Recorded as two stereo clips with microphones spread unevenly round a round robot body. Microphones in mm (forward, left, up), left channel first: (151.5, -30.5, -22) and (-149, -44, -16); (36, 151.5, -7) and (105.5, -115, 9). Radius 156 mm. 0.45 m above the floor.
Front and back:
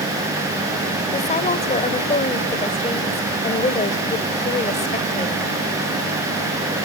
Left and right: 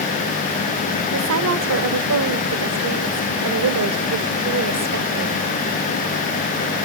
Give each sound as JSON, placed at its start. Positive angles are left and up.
{"t": 1.1, "sound": "a woman speaking", "azimuth_deg": -60, "distance_m": 1.8}